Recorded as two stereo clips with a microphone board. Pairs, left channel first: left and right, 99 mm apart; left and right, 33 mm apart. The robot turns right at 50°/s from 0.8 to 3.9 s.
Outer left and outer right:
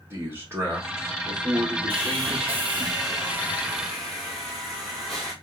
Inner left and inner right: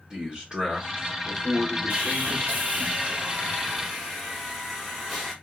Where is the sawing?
95° right, 1.8 m; by 5.3 s 5° left, 1.8 m.